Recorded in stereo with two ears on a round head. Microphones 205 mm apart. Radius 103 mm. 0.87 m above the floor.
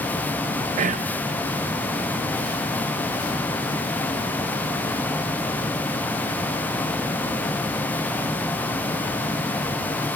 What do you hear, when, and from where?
0.8 s whispering: 30° right (ahead or behind), 0.5 m